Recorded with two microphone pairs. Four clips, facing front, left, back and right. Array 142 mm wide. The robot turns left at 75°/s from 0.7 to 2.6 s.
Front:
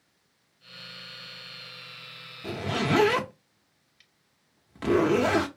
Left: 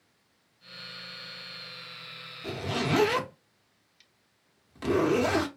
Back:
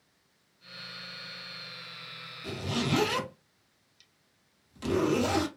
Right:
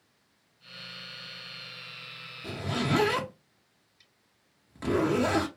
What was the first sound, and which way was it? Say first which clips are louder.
A zipper: left 1 dB, front 4 dB; 20° left.